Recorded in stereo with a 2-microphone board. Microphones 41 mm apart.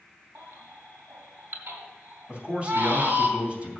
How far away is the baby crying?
About 2 m.